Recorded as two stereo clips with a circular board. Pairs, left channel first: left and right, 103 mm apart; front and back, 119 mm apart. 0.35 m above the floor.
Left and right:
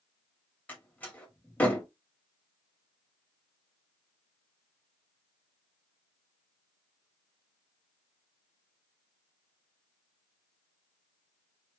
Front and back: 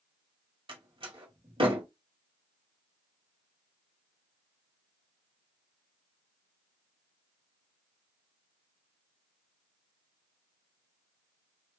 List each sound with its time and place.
0.7 s a door slam: 160° left, 1.3 m